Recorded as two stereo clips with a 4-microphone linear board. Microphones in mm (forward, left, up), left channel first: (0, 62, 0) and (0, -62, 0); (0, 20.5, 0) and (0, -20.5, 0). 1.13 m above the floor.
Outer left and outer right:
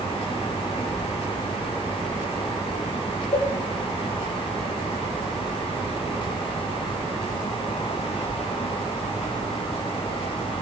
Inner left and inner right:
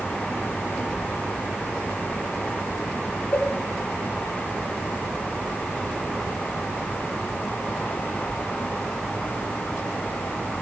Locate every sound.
3.3 s a cowbell: 55° left (ahead or behind), 1.1 m